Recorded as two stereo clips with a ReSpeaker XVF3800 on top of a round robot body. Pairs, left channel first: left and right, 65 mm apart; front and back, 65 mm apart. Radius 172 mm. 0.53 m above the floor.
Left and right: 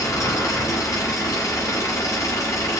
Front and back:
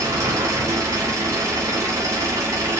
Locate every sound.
0.0 s an engine running: 135° left, 0.7 m